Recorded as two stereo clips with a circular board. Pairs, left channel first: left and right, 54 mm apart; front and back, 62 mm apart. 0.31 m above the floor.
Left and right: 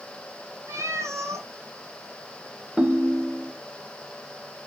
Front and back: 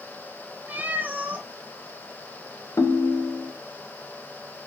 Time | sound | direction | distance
0.7 | a cat meowing | 120° right | 2 m
2.8 | a ringtone | 15° right | 0.7 m